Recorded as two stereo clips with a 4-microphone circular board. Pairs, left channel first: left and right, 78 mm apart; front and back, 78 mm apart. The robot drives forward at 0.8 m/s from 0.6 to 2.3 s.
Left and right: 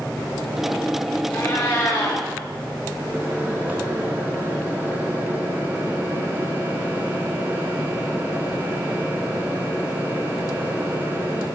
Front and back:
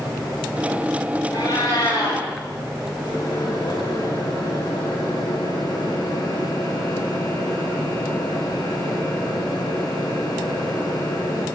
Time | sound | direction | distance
1.3 | a cat meowing | 30° left | 7 m
3.0 | a microwave | 25° right | 6 m